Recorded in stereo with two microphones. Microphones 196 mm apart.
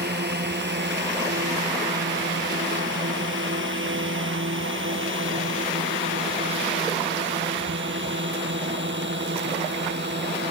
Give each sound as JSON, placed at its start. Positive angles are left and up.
{"t": 0.0, "sound": "a drone", "side_deg": -60}